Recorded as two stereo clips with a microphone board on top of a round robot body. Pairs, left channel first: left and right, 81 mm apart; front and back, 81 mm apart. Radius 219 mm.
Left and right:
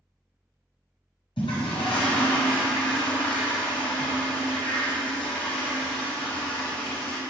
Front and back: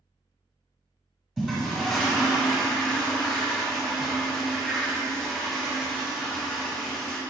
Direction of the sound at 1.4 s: 100° left.